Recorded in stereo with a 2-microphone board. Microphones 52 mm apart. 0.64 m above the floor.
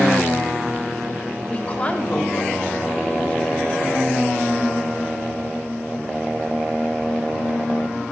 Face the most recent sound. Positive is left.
turn(degrees=30)  # may be behind; listen again after turning